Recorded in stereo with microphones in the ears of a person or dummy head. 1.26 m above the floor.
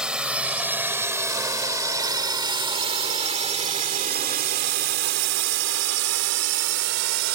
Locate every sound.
0.0 s a drone: centre (ahead or behind); by 7.4 s 85° right